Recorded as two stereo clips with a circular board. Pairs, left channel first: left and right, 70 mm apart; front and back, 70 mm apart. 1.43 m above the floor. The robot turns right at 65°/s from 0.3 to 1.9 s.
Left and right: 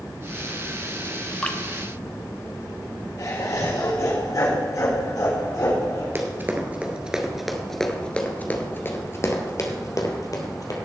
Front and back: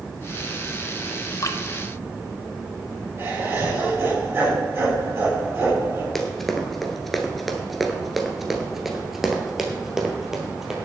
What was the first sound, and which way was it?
Dripping, 15° left.